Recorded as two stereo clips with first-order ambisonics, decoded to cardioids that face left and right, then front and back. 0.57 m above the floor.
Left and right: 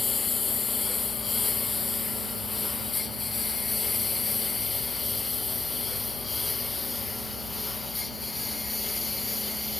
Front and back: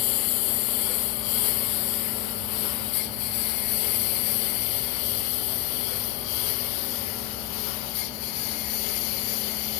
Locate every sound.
0.0 s a lawn mower: 15° left; by 9.8 s 10° left